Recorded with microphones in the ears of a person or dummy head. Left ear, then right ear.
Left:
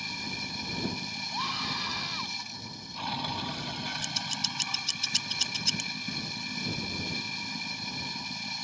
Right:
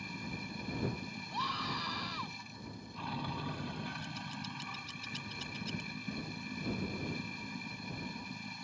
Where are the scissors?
45° left (ahead or behind).